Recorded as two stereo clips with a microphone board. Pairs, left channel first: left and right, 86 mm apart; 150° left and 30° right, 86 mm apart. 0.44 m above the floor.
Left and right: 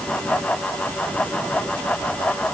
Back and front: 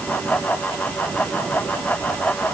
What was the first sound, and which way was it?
Only background noise.